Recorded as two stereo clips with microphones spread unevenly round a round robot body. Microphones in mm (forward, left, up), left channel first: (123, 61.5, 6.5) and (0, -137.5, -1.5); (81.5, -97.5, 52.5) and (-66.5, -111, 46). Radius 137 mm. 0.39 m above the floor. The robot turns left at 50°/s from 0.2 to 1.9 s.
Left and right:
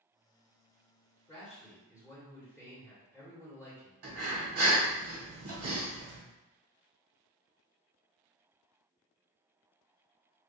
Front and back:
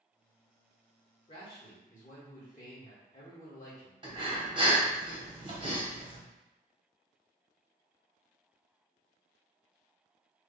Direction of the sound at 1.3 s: 15° right.